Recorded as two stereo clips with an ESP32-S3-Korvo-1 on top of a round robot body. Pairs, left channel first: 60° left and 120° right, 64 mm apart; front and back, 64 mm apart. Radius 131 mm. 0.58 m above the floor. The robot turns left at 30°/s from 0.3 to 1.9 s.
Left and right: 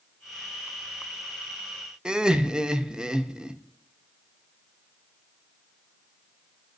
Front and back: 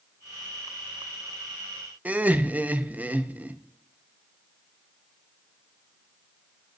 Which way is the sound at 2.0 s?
Straight behind.